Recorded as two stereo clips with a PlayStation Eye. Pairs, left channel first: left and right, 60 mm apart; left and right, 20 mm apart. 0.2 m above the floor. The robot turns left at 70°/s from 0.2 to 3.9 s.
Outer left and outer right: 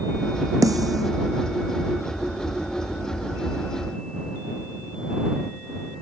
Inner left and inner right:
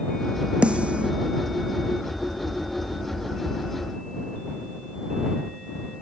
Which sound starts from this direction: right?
A snare drum, at 0.6 s.